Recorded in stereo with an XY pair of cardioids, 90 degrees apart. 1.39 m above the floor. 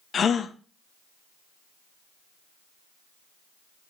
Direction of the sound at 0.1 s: 55° left.